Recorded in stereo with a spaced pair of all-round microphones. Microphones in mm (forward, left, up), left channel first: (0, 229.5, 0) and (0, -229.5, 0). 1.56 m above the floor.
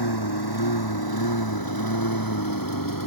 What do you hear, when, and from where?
0.0 s a lawn mower: 55° left (ahead or behind); by 3.1 s 45° left (ahead or behind)